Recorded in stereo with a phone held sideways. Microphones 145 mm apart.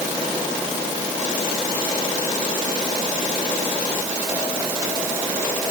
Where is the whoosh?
No whoosh in this recording.